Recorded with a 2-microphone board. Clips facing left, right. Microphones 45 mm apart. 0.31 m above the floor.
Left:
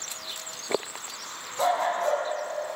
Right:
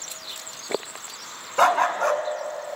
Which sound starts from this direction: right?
A dog barking, at 1.6 s.